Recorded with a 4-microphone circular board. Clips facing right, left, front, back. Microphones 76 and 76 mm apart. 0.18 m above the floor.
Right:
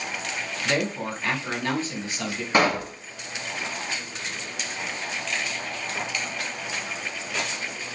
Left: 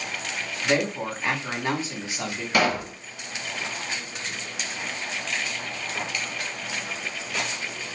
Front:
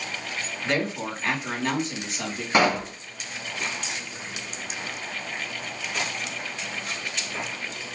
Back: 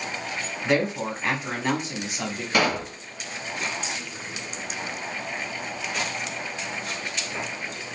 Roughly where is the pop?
Ahead right.